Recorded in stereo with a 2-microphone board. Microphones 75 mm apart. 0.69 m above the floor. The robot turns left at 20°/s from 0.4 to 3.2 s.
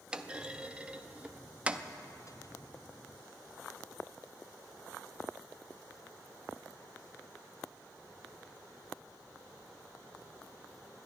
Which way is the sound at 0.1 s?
15° right (ahead or behind).